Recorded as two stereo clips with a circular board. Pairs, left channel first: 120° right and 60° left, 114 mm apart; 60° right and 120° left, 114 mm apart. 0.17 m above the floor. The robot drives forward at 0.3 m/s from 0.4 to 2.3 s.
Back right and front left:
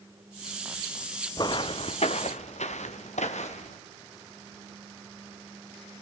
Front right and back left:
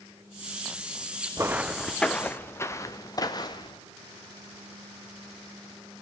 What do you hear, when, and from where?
1.4 s footsteps: 175° right, 0.7 m; by 3.8 s 110° right, 2.5 m